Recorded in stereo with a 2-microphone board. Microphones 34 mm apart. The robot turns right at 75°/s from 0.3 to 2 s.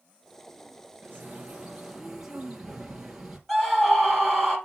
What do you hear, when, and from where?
1.0 s a bird: 85° right, 3 m; by 3.4 s 10° right, 3 m
3.5 s a scream: 5° left (ahead or behind), 4.5 m